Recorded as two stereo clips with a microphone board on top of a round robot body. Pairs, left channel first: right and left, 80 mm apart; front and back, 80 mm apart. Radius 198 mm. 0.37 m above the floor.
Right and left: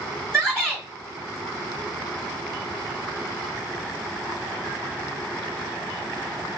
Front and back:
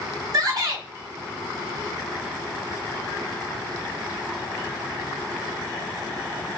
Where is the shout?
170° right, 1.5 m.